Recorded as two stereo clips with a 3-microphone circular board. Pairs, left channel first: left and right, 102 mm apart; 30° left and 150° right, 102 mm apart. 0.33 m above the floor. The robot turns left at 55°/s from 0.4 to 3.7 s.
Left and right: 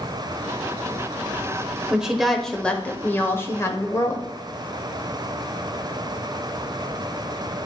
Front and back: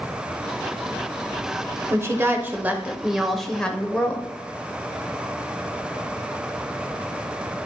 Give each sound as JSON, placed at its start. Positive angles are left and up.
{"t": 1.9, "sound": "a woman speaking", "azimuth_deg": -160, "distance_m": 0.9}